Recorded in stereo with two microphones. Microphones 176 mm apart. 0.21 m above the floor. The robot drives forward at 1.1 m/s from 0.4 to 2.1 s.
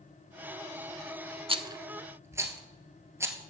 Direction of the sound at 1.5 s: 35° right (ahead or behind).